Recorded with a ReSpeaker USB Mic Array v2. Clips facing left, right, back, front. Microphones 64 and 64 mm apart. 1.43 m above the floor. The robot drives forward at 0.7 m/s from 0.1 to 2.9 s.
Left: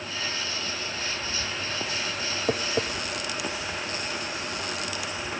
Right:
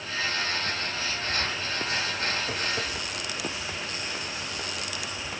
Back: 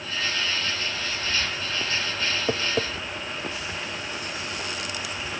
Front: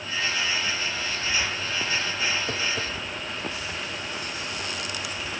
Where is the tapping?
130° left, 0.8 m; by 2.9 s 145° left, 0.9 m.